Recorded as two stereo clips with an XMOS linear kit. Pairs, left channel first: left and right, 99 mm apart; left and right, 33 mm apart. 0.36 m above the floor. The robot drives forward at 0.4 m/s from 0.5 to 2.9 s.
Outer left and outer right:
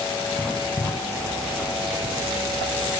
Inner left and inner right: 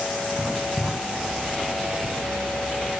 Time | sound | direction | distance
0.4 | writing | 5° left (ahead or behind) | 2 m